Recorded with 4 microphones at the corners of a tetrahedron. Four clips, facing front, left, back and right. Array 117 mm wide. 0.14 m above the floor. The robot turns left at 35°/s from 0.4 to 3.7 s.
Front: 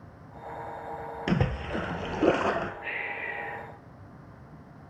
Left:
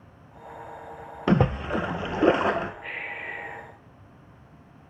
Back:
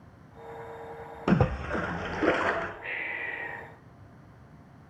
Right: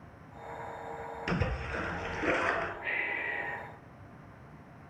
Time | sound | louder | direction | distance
1.3 | a splash | left 13 dB, back 4 dB | 105° left | 0.5 m
2.8 | breathing | right 1 dB, front 1 dB | 50° right | 4 m